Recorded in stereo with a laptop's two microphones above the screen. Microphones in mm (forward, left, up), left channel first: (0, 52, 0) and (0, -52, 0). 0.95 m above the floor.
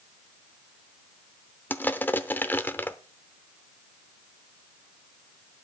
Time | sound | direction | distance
1.7 | crushing | 20° left (ahead or behind) | 0.7 m